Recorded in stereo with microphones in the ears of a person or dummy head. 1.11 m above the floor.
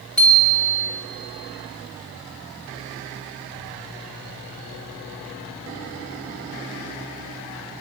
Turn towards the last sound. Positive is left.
turn(degrees=5)  # may be behind; listen again after turning